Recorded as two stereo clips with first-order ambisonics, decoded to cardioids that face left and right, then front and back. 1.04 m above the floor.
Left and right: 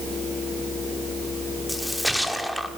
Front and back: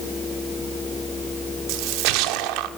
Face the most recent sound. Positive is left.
turn(degrees=180)